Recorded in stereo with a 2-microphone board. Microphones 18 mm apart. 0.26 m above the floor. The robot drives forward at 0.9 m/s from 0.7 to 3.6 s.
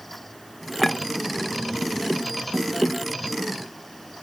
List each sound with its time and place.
0.8 s a clink: 5° left (ahead or behind)